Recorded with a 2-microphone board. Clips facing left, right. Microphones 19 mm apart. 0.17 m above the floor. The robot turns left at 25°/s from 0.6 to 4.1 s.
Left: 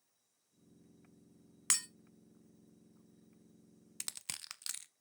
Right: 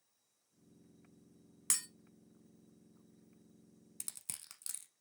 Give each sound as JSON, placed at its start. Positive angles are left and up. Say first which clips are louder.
{"t": 1.7, "sound": "breaking glass", "louder": "left 3 dB", "side_deg": 25, "distance_m": 0.9}
{"t": 4.0, "sound": "crushing", "louder": "left 6 dB", "side_deg": 35, "distance_m": 0.5}